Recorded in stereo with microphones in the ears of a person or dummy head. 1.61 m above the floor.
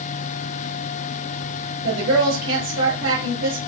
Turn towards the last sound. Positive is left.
turn(degrees=-70)  # may be behind; listen again after turning